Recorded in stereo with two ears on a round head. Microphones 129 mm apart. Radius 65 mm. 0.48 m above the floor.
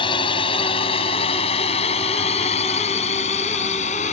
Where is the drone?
35° left (ahead or behind); by 4.1 s 55° left (ahead or behind).